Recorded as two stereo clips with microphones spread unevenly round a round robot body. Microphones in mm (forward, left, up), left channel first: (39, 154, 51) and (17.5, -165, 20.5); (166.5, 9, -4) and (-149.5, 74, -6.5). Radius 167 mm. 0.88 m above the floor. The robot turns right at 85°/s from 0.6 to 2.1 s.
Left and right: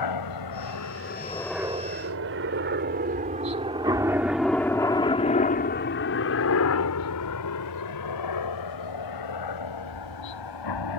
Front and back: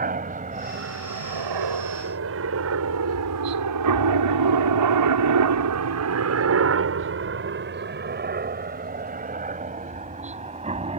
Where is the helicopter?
105° left; by 11.0 s 95° left.